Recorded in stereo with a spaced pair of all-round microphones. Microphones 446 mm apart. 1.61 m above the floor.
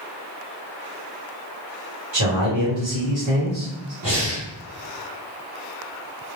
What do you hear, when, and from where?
2.1 s a man speaking: 50° right (ahead or behind), 1.3 m
4.0 s breathing: 60° right (ahead or behind), 1.3 m